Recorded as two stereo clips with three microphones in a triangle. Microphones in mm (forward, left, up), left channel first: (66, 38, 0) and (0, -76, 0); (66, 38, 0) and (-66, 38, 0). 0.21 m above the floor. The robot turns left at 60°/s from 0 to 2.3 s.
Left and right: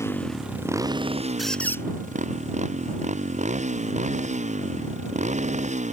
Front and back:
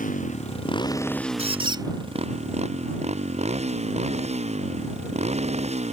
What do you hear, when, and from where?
0.0 s a motorcycle: 10° right; by 5.9 s 145° right
1.4 s a squeak: 150° left; by 1.9 s 125° left